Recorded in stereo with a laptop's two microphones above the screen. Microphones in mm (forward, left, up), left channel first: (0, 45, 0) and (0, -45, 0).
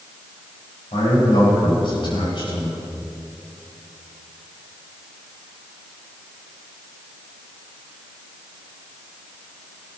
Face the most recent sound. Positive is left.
turn(degrees=60)  # may be behind; listen again after turning